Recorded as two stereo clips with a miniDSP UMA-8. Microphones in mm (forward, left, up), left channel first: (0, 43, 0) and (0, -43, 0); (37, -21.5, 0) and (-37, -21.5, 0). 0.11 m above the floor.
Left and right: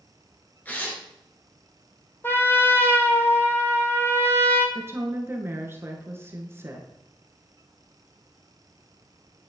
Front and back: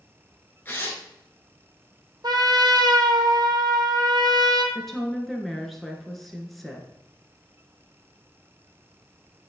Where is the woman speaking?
90° right, 1.3 m.